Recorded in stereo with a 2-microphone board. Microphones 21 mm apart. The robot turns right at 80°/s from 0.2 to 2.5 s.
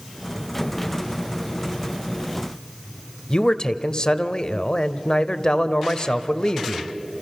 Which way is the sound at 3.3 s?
40° left (ahead or behind).